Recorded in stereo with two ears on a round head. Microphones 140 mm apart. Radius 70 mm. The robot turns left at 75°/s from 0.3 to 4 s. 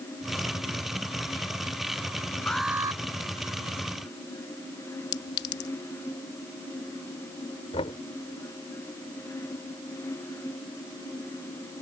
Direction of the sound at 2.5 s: 10° left.